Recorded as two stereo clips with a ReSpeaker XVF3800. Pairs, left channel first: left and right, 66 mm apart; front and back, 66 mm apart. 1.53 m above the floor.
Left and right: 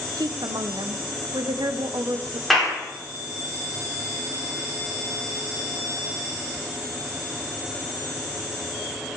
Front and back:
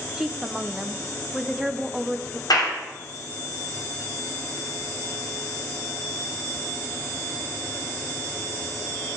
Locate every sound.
0.2 s a woman speaking: 95° right, 0.8 m
2.5 s a clap: straight ahead, 4 m